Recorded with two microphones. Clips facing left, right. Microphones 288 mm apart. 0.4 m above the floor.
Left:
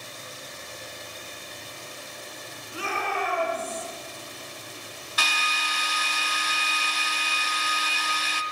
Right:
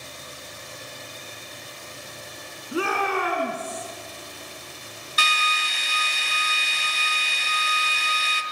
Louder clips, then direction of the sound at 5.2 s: Right 2 dB; 70° left (ahead or behind).